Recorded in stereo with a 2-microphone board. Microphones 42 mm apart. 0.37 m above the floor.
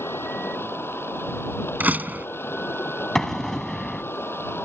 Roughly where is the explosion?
Centre.